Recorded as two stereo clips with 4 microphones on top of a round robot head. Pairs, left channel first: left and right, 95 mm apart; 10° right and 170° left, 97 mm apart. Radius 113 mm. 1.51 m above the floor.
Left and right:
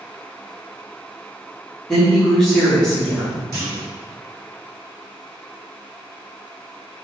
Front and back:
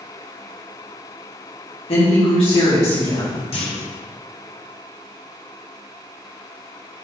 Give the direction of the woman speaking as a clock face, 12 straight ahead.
12 o'clock.